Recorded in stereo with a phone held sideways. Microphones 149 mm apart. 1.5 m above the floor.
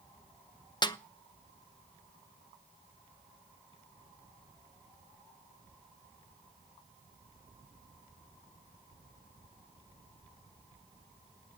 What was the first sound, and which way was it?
A snare drum, 30° left (ahead or behind).